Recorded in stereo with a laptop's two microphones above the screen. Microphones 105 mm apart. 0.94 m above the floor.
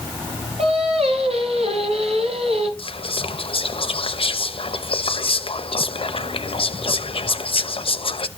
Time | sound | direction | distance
0.6 | singing | 75° right (ahead or behind) | 3 m
2.8 | whispering | 60° left (ahead or behind) | 0.8 m